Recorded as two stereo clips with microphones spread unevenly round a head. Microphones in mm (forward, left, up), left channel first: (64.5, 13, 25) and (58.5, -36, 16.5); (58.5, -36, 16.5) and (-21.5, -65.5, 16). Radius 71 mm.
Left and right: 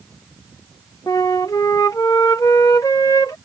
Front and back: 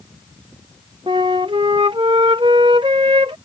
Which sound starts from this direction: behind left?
A flute, at 1.1 s.